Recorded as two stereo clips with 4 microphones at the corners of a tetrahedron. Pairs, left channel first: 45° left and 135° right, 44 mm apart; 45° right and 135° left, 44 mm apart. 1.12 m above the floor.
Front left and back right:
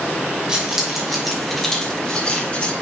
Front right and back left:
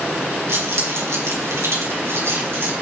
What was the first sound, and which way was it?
Keys jangling, 150° left.